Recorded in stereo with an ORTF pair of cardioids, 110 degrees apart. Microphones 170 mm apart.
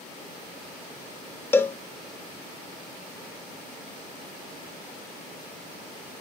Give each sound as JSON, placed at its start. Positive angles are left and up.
{"t": 1.5, "sound": "a cowbell", "azimuth_deg": 15, "distance_m": 0.8}